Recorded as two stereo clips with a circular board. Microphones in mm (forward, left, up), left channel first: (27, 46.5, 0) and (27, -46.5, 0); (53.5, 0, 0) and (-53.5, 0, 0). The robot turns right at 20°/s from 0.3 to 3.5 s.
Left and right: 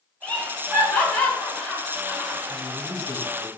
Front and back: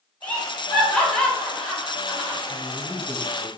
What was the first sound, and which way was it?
Laughter, 50° left.